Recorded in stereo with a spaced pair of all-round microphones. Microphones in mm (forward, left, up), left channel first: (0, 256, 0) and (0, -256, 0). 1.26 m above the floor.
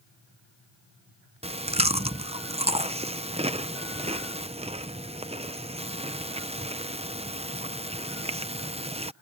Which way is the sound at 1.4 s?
10° right (ahead or behind).